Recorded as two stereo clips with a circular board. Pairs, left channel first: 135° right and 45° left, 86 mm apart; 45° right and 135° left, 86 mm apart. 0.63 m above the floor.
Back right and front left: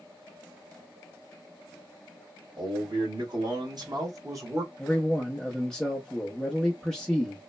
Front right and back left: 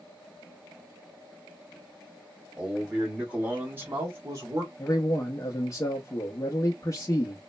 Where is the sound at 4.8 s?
60° right, 0.6 m.